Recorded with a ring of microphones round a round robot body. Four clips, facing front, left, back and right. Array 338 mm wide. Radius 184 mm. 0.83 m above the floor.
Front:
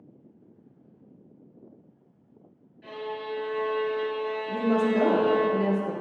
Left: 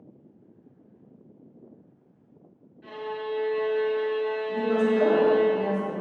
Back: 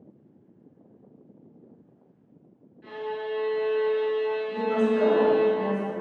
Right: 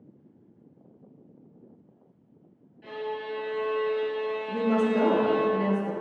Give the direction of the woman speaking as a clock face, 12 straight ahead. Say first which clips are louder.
Even, front 2 dB; 1 o'clock.